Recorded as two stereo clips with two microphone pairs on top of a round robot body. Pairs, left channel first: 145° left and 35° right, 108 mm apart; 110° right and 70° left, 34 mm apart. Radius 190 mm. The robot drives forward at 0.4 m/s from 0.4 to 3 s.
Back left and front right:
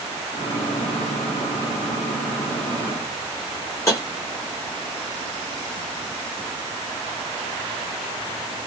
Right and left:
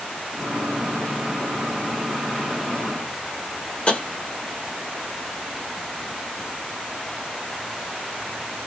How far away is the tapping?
About 1.4 m.